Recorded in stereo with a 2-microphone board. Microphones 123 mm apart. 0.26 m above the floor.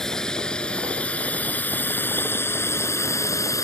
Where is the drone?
5° left (ahead or behind); by 3.7 s 25° left (ahead or behind).